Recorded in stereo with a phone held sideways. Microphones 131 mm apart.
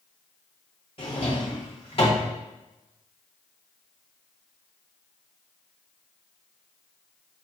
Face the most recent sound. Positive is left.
turn(degrees=45)  # may be behind; listen again after turning